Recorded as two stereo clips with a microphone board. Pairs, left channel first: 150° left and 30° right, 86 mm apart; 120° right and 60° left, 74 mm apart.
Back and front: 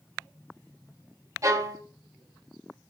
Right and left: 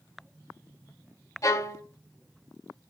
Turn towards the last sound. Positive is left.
turn(degrees=-80)